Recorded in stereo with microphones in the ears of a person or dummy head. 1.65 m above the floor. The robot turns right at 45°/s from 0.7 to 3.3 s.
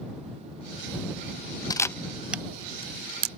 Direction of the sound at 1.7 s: 20° left (ahead or behind).